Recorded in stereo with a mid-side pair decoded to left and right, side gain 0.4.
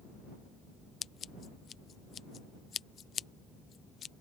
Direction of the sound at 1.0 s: 60° left.